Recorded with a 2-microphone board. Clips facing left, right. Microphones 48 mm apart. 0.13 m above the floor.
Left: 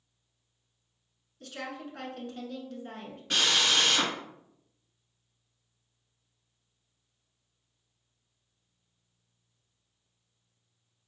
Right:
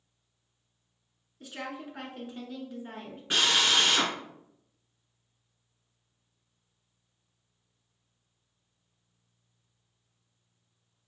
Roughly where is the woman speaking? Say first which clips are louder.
Even; centre.